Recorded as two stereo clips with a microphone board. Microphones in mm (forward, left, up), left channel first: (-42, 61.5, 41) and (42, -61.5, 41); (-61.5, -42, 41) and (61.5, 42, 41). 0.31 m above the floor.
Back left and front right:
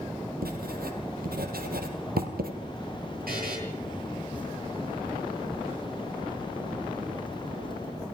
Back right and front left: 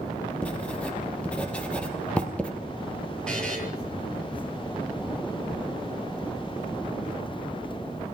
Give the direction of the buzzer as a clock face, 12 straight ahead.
2 o'clock.